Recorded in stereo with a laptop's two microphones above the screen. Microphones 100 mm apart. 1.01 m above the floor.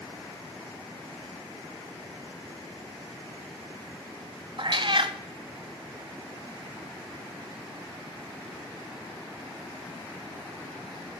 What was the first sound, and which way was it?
A cat meowing, 55° right (ahead or behind).